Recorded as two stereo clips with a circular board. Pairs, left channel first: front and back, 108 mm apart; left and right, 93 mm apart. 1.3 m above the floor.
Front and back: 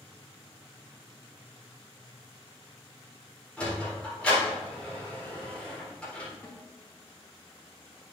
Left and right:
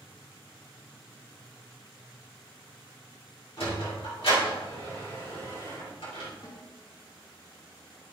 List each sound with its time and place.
3.6 s a sliding door: 80° left, 4 m
6.4 s a snare drum: 55° left, 4.5 m